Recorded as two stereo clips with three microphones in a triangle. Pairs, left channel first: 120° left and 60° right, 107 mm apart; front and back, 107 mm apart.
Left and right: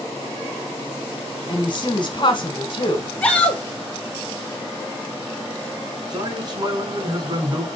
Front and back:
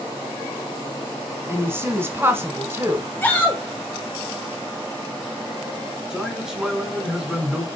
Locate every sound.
1.5 s a woman speaking: 120° left, 1.5 m
3.2 s a shout: 55° left, 1.2 m
6.1 s a man speaking: 95° right, 2.0 m